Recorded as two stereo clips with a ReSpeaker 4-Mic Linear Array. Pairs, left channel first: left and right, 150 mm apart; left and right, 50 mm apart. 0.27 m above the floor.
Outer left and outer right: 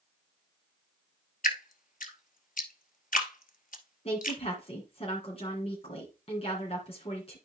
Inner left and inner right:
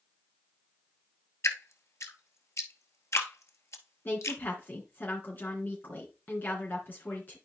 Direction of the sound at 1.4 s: 65° left (ahead or behind).